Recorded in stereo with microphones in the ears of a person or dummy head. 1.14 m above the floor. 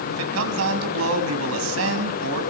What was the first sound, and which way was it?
A man speaking, 85° right.